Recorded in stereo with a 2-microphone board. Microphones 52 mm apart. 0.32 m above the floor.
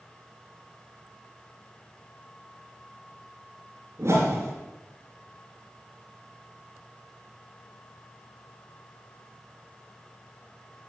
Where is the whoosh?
55° right (ahead or behind), 4 m.